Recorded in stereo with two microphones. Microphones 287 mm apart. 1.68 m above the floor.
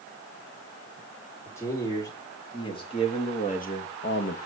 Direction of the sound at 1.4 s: 10° left (ahead or behind).